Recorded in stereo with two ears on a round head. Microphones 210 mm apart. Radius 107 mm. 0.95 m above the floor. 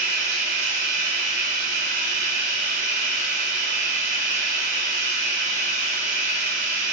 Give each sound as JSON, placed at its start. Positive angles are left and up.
{"t": 0.0, "sound": "running water", "side_deg": -50, "distance_m": 1.6}